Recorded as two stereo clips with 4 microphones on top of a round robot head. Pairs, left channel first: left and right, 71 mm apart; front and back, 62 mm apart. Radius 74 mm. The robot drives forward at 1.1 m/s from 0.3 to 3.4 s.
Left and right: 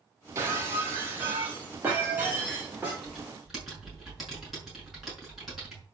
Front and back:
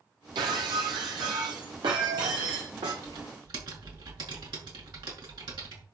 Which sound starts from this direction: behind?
Typing on a keyboard, at 3.0 s.